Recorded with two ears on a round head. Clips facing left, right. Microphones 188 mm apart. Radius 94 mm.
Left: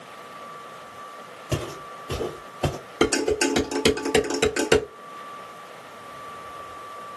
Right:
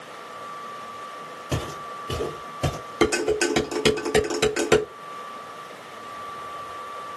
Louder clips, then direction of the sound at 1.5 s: Left 1 dB; 15° right (ahead or behind).